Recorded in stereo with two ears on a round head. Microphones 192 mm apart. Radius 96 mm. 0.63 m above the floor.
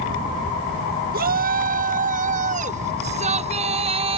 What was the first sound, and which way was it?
A shout, 40° right (ahead or behind).